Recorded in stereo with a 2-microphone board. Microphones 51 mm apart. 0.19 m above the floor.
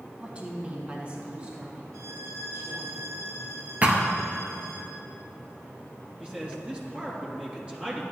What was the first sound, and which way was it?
A woman speaking, 25° right (ahead or behind).